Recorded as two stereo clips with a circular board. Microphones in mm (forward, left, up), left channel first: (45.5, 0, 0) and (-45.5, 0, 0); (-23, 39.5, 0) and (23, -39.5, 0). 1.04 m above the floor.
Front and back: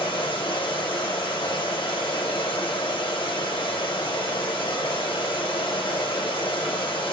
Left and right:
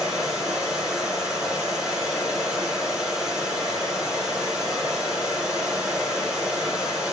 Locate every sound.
0.0 s running water: 25° left, 5 m